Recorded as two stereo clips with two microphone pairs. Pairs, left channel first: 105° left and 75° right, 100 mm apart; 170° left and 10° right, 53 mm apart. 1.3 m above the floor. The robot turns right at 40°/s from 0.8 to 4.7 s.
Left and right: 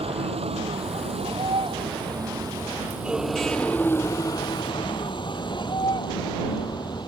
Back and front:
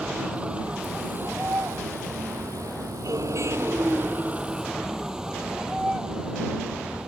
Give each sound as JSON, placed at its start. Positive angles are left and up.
{"t": 0.0, "sound": "a vehicle", "azimuth_deg": -80}